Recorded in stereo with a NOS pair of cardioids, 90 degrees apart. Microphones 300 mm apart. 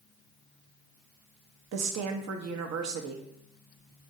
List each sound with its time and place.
1.7 s a woman speaking: 60° right, 0.8 m